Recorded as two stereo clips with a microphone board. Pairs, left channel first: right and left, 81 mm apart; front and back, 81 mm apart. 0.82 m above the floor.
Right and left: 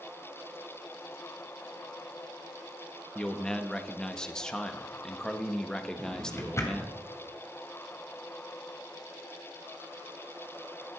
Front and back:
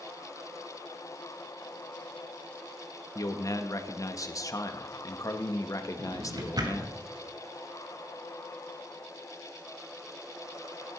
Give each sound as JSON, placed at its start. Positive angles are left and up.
{"t": 3.1, "sound": "a man speaking", "azimuth_deg": -10, "distance_m": 1.1}
{"t": 6.0, "sound": "a drawer", "azimuth_deg": -145, "distance_m": 2.0}